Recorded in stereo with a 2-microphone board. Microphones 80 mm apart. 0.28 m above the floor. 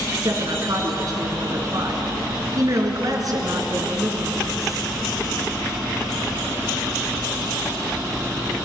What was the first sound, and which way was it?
A woman speaking, 50° right (ahead or behind).